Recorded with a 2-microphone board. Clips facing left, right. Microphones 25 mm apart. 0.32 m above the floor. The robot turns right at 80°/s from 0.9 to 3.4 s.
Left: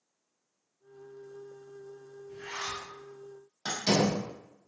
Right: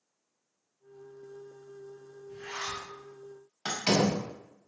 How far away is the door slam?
About 1.2 m.